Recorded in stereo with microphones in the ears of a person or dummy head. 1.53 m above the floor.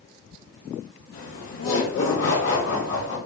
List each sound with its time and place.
1.1 s laughter: 70° left (ahead or behind), 0.8 m; by 3.2 s 50° left (ahead or behind), 1.3 m